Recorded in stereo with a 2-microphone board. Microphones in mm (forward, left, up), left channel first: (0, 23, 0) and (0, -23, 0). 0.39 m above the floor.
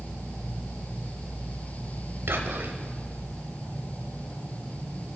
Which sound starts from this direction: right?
Whispering, at 2.3 s.